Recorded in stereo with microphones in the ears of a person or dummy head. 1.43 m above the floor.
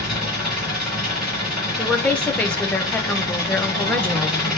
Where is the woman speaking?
5° left (ahead or behind), 0.6 m.